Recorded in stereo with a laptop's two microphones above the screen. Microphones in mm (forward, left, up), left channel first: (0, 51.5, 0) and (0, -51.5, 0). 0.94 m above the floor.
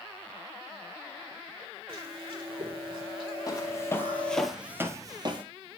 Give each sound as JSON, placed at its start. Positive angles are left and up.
{"t": 1.9, "sound": "chewing", "side_deg": -55, "distance_m": 3.5}
{"t": 3.5, "sound": "footsteps", "side_deg": 35, "distance_m": 1.7}